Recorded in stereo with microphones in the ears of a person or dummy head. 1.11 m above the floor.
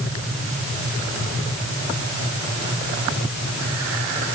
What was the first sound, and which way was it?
Only background noise.